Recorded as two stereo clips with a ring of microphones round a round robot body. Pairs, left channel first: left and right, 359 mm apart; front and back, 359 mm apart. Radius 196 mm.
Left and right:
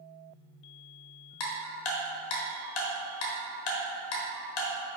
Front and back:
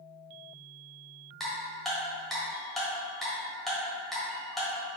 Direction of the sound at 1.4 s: 90° left.